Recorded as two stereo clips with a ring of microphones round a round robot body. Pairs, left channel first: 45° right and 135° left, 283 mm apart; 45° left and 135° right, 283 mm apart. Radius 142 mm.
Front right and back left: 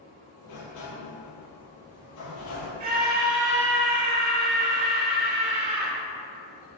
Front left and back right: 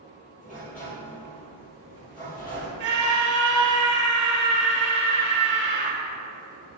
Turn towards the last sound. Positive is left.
turn(degrees=-175)